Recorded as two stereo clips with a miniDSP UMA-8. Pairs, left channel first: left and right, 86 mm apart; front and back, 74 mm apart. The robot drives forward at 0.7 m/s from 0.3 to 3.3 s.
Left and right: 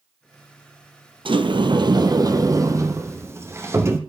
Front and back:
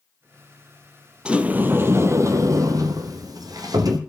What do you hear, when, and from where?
1.2 s a sliding door: 105° right, 1.1 m; by 4.0 s 150° right, 2.0 m